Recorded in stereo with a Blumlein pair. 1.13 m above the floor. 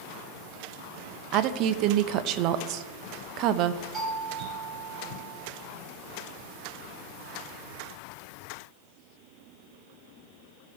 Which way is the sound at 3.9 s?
10° right.